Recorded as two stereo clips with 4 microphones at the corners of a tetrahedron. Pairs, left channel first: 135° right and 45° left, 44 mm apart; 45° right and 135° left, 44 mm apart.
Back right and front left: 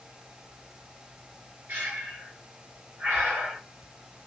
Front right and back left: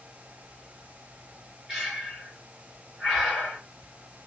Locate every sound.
1.7 s breathing: 60° left, 1.8 m